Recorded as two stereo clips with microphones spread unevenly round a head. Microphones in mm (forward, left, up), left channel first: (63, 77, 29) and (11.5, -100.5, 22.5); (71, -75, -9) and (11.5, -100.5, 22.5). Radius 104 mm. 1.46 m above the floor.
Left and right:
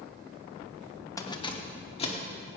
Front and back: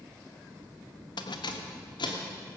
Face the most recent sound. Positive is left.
turn(degrees=20)